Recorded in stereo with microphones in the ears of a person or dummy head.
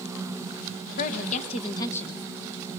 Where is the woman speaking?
50° left (ahead or behind), 2.0 m; by 2.7 s 15° right (ahead or behind), 1.6 m.